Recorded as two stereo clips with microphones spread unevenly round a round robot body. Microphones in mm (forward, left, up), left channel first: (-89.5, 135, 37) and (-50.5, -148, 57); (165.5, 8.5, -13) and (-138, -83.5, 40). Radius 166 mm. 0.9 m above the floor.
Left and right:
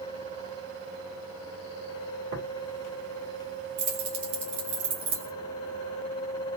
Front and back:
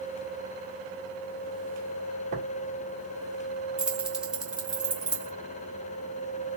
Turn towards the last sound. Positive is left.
turn(degrees=-75)